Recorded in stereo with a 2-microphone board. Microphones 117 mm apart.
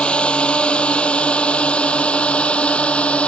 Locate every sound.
0.0 s a drone: 10° left (ahead or behind)